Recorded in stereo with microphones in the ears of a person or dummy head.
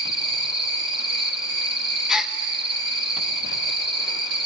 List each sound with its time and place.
0.0 s an insect: 30° right (ahead or behind), 1.8 m
2.1 s a gasp: 5° right (ahead or behind), 1.4 m